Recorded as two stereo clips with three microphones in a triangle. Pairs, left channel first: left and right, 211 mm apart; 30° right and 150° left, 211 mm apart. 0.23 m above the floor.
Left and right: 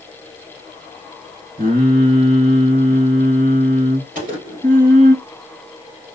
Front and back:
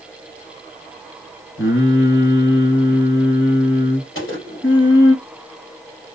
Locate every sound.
1.6 s singing: 45° right, 1.8 m
4.2 s a gunshot: 40° right, 3 m